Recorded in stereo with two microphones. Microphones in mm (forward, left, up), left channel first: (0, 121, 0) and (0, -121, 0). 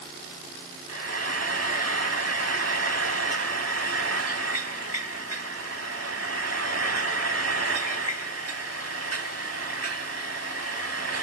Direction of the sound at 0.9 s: 85° right.